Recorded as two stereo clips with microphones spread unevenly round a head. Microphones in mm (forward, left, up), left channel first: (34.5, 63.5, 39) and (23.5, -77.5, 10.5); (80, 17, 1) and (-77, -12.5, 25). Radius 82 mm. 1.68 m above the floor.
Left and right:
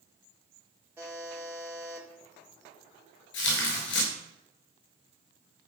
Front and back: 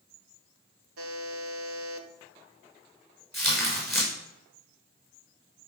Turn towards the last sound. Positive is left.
turn(degrees=100)